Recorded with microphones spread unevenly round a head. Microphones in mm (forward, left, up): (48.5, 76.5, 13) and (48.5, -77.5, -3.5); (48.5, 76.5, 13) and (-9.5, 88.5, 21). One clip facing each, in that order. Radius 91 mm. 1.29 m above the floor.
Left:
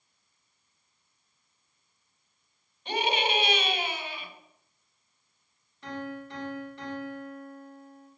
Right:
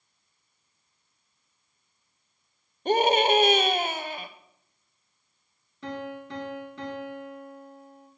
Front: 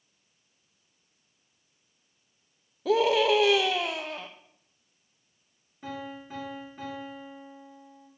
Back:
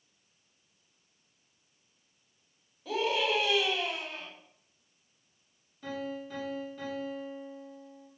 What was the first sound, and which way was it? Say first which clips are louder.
A scream: right 8 dB, front 7 dB; 45° right.